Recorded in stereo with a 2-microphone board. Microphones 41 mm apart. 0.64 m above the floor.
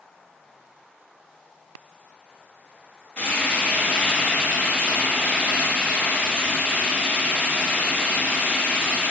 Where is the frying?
25° left (ahead or behind), 1.6 m.